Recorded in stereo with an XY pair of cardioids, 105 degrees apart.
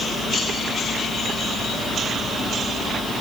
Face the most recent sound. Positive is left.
No sound to turn to.